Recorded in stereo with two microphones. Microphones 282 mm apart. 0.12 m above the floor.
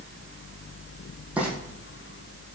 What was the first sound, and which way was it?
Frying, 5° right (ahead or behind).